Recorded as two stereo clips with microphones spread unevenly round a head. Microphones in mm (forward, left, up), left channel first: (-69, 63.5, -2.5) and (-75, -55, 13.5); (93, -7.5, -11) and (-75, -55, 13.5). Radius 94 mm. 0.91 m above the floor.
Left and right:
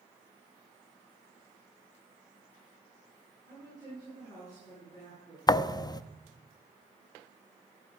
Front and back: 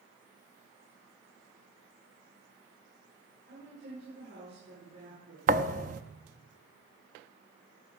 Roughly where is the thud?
Behind left.